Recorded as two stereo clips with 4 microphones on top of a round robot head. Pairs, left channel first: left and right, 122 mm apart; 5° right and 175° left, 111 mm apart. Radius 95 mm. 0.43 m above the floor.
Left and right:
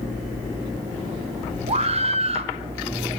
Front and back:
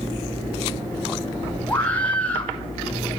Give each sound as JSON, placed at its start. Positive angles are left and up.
{"t": 1.7, "sound": "a scream", "azimuth_deg": -80, "distance_m": 1.9}